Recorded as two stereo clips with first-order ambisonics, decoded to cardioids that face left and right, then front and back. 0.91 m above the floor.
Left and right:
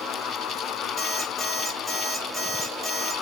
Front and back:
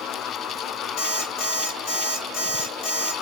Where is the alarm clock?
20° left, 1.8 m.